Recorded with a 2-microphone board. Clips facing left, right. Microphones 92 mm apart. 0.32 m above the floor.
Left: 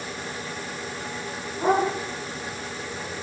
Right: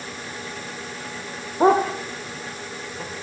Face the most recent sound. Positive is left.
turn(degrees=-65)  # may be behind; listen again after turning